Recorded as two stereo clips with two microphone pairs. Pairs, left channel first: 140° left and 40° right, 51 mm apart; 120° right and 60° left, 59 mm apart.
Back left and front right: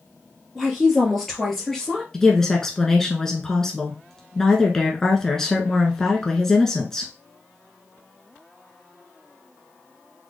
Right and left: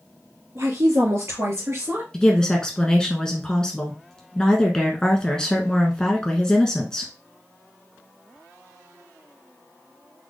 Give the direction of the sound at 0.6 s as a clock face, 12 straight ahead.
10 o'clock.